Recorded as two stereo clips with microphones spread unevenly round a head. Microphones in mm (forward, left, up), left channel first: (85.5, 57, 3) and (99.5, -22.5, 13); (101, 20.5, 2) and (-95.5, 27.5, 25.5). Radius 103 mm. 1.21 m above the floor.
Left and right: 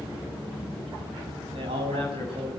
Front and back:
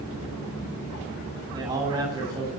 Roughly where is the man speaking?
Right.